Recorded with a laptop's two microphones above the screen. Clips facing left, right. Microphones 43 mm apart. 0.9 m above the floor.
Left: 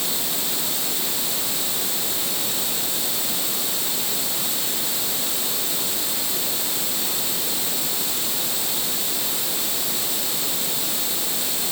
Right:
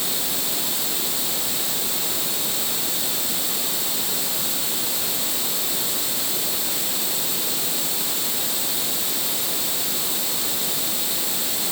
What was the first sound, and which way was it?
Only background noise.